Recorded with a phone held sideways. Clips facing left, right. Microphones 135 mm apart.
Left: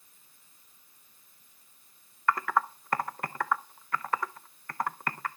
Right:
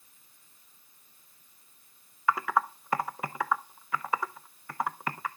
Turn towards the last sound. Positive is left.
turn(degrees=-5)  # may be behind; listen again after turning